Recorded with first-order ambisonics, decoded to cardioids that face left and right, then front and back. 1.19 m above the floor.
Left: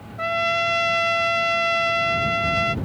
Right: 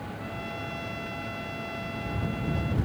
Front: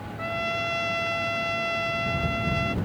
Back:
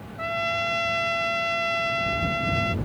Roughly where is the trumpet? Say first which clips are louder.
Left 19 dB, back 2 dB; left.